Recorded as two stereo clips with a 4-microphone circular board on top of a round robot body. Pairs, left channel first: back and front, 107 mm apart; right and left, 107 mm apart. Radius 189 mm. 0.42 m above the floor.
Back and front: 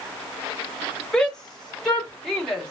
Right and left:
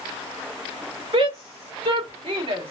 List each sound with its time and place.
1.1 s a shout: 100° left, 3.5 m; by 2.7 s 95° left, 3 m